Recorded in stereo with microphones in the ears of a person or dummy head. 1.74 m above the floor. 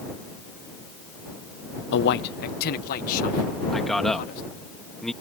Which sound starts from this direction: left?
A man speaking, at 1.9 s.